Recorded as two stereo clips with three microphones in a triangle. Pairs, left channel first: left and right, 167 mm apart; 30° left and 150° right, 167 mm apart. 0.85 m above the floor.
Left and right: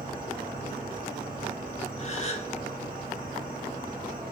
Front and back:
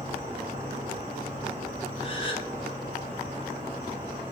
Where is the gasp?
70° left, 0.5 m.